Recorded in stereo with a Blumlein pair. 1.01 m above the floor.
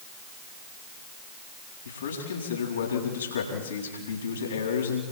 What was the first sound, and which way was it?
A man speaking, 65° left.